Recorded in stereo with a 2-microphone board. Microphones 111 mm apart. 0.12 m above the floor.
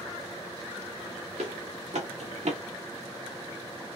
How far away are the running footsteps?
About 1.9 m.